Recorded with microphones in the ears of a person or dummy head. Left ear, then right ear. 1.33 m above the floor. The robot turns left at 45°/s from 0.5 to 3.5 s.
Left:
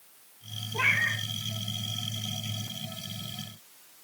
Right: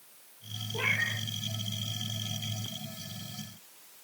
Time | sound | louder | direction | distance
0.7 | a cat meowing | left 4 dB | 15° left (ahead or behind) | 1.0 m